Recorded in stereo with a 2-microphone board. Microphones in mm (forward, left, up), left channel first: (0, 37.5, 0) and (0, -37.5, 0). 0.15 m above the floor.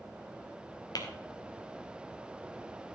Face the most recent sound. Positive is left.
turn(degrees=55)  # may be behind; listen again after turning